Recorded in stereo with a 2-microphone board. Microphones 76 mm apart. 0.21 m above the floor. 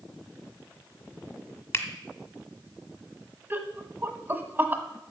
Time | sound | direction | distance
1.7 | a finger snap | 30° left (ahead or behind) | 1.5 m
3.5 | laughter | 25° right (ahead or behind) | 1.2 m